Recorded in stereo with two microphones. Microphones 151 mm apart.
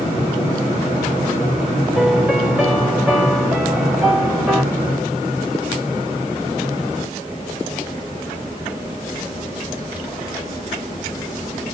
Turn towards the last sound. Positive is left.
turn(degrees=-5)  # may be behind; listen again after turning